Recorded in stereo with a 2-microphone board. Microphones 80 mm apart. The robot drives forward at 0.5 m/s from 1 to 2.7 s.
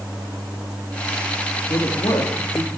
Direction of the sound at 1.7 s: 75° left (ahead or behind).